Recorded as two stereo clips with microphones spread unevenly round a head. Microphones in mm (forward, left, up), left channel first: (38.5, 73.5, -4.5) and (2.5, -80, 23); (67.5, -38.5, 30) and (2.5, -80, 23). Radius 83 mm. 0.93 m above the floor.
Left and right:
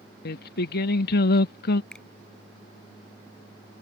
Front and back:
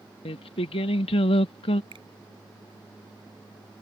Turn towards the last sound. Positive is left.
turn(degrees=165)